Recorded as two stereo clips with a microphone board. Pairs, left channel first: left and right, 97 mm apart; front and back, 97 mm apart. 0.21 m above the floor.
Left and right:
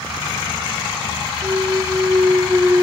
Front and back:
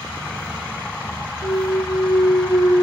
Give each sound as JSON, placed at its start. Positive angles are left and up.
{"t": 1.4, "sound": "a clunk", "azimuth_deg": -25, "distance_m": 1.0}